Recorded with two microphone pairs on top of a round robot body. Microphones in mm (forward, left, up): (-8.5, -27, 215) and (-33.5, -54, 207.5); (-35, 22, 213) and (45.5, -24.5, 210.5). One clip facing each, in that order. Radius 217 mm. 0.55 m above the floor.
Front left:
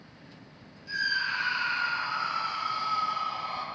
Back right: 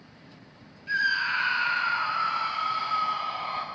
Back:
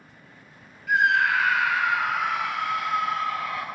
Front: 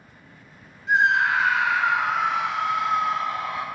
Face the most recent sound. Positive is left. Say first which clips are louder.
# back right 4 dB, front 1 dB
turn(degrees=-95)